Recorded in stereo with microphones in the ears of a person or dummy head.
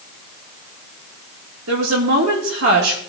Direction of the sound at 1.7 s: 80° right.